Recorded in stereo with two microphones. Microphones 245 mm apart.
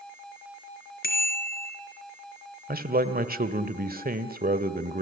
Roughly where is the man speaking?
Right.